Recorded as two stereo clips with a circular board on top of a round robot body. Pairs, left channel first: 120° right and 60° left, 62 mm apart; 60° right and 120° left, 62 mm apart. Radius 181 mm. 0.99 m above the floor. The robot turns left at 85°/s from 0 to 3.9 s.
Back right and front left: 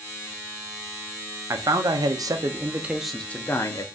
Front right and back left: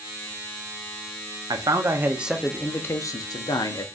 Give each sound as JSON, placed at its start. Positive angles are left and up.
{"t": 1.5, "sound": "a man speaking", "azimuth_deg": 105, "distance_m": 0.7}